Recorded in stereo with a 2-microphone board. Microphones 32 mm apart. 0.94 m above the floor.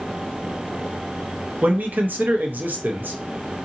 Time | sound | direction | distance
1.6 | a man speaking | 65° right (ahead or behind) | 0.6 m